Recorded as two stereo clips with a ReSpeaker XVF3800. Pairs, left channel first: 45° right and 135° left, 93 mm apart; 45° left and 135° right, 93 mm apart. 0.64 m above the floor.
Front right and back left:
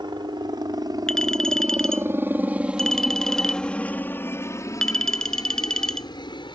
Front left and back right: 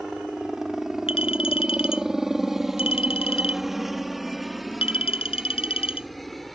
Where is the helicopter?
140° left; by 6.5 s 45° right.